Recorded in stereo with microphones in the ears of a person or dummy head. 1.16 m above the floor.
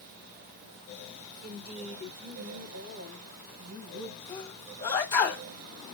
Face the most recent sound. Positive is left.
turn(degrees=20)  # may be behind; listen again after turning